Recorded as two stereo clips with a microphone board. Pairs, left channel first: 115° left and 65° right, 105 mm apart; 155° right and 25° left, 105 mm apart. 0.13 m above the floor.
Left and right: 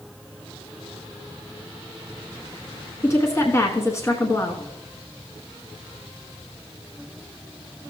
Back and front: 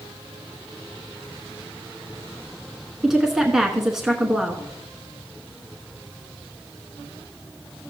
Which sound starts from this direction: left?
A woman speaking, at 3.0 s.